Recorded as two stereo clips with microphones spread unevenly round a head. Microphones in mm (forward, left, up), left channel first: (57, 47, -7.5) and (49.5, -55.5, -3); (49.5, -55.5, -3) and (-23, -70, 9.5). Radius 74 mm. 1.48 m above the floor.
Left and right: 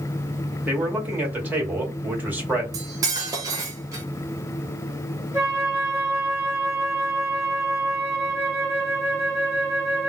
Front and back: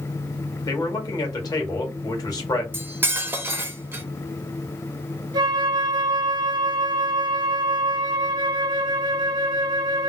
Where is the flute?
165° right, 0.7 m.